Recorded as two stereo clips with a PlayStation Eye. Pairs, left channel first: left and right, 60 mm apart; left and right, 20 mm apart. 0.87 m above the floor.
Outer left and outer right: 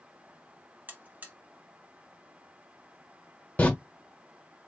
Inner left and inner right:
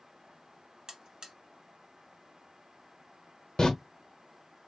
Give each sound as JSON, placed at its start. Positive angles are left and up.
{"t": 0.9, "sound": "a buzzer", "side_deg": -30, "distance_m": 0.9}
{"t": 3.6, "sound": "a door slam", "side_deg": 25, "distance_m": 1.1}